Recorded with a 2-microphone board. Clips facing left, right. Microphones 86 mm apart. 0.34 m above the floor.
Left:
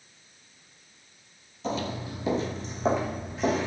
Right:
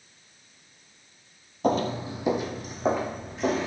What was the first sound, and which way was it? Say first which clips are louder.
Footsteps: right 6 dB; 50° right (ahead or behind).